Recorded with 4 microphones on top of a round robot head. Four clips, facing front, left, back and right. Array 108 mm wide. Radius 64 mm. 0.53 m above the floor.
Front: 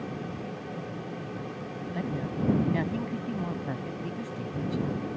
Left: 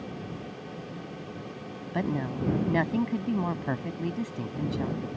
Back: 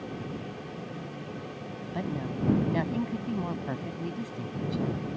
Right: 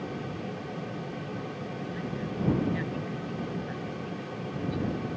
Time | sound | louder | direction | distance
1.9 | a woman speaking | left 7 dB, even | 100° left | ?